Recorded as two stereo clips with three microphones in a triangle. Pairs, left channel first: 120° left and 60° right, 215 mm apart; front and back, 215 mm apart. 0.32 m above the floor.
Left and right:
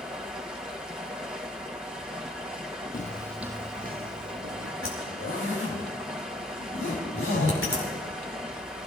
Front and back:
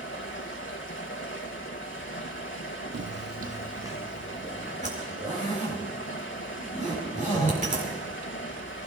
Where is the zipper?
125° left, 5.5 m.